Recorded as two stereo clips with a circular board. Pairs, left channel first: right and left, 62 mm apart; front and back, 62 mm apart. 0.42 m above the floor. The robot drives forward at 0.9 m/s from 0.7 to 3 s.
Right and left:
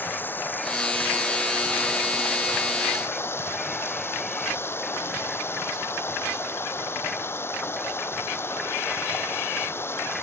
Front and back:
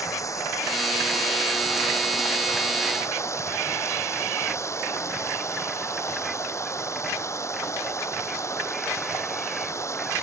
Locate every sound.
0.0 s running water: 30° right; by 10.2 s 40° right